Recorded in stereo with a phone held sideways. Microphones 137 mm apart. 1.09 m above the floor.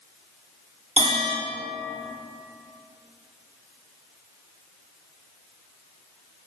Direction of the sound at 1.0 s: 50° right (ahead or behind).